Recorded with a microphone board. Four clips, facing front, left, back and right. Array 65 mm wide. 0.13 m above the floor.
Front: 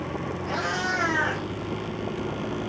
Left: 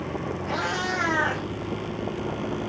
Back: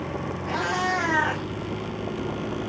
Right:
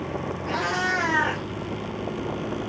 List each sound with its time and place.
0.5 s a cat meowing: 105° right, 2.0 m